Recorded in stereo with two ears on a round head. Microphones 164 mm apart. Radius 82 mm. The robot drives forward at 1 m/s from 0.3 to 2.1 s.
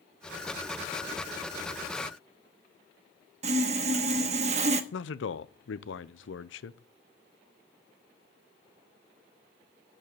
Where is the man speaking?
70° left (ahead or behind), 0.7 m.